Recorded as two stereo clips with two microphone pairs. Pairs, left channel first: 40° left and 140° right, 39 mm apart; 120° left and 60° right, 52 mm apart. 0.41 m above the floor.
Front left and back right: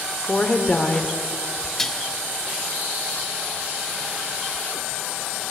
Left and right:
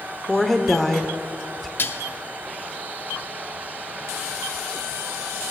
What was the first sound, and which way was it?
A woman speaking, 40° left.